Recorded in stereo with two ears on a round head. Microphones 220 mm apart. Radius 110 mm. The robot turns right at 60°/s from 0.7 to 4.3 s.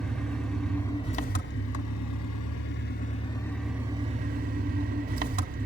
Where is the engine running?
Straight ahead, 1.2 m; by 5.7 s 140° right, 1.2 m.